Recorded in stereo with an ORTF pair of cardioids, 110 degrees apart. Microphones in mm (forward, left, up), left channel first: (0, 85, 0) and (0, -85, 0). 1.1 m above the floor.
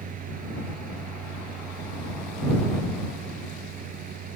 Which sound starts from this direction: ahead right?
A fan, at 0.0 s.